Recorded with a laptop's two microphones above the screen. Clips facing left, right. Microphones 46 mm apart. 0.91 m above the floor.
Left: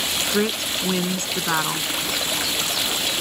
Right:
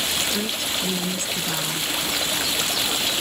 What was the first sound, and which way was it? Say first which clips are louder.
A woman speaking: left 4 dB; 45° left (ahead or behind).